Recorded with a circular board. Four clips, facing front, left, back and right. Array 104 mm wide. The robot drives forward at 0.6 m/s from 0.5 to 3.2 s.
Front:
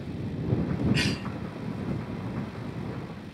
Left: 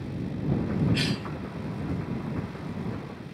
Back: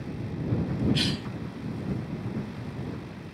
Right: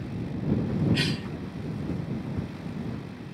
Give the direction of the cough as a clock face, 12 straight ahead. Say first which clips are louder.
Even, front 1 dB; 12 o'clock.